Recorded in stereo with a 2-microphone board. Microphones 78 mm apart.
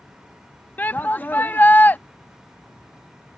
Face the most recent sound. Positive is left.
turn(degrees=25)  # may be behind; listen again after turning